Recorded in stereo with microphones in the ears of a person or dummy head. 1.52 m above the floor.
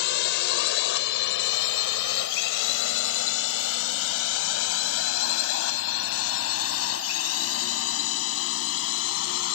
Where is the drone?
65° left (ahead or behind); by 9.6 s 85° left.